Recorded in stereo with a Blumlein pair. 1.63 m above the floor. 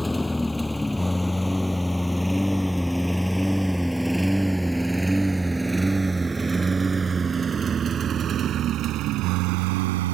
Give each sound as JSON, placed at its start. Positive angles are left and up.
{"t": 0.0, "sound": "a lawn mower", "azimuth_deg": 5}